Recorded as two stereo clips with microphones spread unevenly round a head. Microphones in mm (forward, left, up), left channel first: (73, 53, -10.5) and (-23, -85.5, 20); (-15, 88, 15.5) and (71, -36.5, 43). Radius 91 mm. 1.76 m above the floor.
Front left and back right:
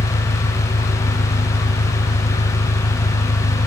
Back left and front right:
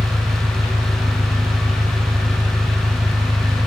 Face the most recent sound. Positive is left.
turn(degrees=15)